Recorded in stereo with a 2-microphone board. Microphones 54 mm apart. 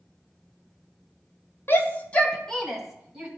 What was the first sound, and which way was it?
A shout, 40° left (ahead or behind).